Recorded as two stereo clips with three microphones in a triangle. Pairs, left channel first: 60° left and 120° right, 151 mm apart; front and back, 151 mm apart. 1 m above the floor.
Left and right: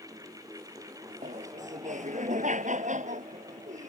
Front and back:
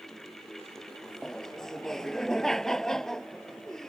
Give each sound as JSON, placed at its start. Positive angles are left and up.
{"t": 1.2, "sound": "laughter", "azimuth_deg": -85}